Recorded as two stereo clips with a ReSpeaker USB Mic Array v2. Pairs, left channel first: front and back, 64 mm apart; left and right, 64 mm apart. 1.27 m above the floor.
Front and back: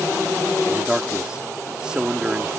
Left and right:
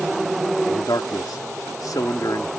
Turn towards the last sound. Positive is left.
turn(degrees=105)